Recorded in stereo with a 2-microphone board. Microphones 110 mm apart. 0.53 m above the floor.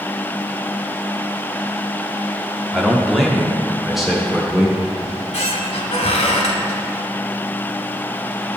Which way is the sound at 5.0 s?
80° left.